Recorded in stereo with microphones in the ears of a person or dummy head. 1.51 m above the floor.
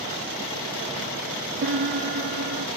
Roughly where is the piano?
Right.